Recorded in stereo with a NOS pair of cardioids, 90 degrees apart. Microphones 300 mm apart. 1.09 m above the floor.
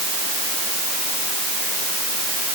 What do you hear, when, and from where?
Only background noise.